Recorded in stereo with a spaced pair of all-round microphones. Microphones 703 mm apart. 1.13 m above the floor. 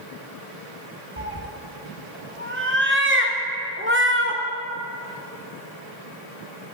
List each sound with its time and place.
1.2 s a cat meowing: 20° right (ahead or behind), 0.6 m